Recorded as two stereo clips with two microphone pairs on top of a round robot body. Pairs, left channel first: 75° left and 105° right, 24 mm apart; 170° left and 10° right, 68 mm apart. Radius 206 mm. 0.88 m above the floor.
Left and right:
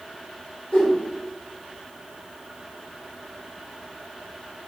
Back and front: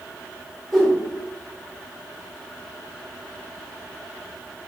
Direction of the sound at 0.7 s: 85° left.